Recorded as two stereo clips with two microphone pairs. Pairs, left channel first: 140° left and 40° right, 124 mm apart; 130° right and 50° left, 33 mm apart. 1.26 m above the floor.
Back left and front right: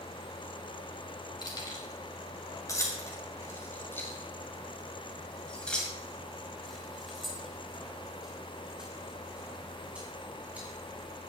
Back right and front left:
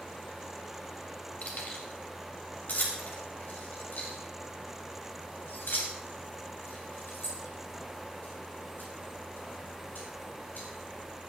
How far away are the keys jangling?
About 4.5 m.